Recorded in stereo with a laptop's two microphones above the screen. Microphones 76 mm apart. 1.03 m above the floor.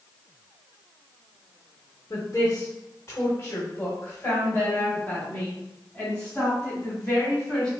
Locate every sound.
2.1 s a woman speaking: 45° left (ahead or behind), 1.3 m; by 7.7 s 10° left (ahead or behind), 4 m